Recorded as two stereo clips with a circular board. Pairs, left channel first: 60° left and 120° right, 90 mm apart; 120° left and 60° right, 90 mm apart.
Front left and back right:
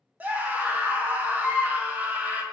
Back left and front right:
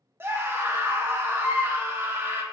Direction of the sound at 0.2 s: 70° right.